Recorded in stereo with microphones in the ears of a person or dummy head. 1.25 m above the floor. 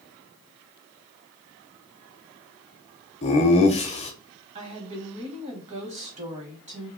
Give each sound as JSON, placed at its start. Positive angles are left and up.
{"t": 3.2, "sound": "laughter", "side_deg": 35, "distance_m": 0.5}
{"t": 4.5, "sound": "a woman speaking", "side_deg": -35, "distance_m": 0.9}